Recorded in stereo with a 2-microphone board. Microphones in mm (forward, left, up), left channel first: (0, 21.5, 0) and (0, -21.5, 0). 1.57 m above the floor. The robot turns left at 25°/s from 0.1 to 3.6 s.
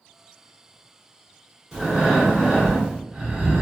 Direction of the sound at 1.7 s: 10° right (ahead or behind).